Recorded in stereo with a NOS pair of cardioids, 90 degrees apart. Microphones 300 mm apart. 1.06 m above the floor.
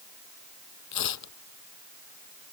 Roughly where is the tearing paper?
Ahead left.